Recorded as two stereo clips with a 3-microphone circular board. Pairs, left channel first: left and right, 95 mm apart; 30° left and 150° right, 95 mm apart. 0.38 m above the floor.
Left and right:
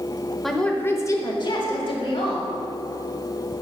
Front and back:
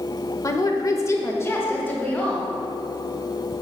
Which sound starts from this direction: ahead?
A woman speaking, at 0.4 s.